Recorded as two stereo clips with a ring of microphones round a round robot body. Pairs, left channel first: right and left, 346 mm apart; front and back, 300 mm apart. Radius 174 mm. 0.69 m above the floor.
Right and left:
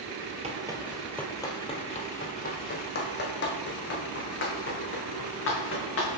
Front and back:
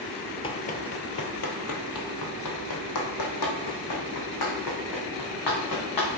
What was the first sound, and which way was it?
Running footsteps, 50° left.